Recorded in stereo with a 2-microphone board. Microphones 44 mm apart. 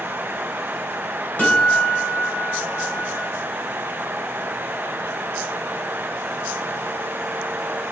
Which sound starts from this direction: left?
A guitar, at 1.4 s.